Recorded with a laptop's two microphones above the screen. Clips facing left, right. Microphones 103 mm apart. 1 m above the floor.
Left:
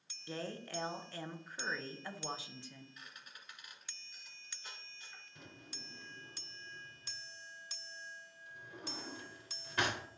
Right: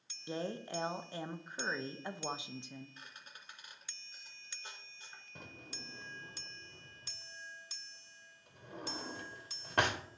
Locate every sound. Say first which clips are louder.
0.3 s a woman speaking: right 4 dB; 20° right (ahead or behind), 0.5 m
3.0 s a squeak: right 1 dB; 30° right (ahead or behind), 2.5 m
5.3 s a drawer: right 4 dB; 55° right (ahead or behind), 1.0 m